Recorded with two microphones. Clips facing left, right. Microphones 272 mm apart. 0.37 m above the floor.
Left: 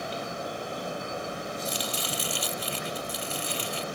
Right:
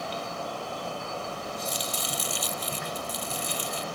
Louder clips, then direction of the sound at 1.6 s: Left 1 dB; 70° left (ahead or behind).